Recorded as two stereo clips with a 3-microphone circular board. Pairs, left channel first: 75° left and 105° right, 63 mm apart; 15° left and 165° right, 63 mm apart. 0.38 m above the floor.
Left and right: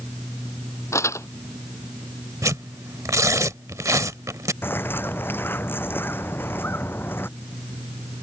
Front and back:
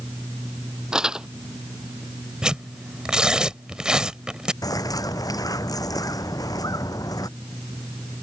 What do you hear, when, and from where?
0.9 s crumpling: 115° left
2.4 s tearing paper: 90° right
4.6 s a bird: 20° left